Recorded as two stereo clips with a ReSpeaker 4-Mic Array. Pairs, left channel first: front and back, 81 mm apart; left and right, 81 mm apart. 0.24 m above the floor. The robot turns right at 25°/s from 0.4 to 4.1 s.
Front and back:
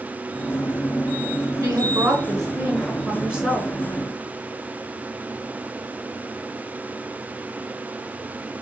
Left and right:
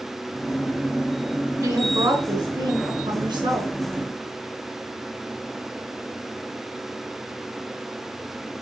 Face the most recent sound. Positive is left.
turn(degrees=-80)